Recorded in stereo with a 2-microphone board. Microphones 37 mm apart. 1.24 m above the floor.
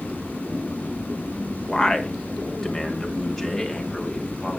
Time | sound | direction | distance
1.7 | a man speaking | 15° left (ahead or behind) | 1.2 m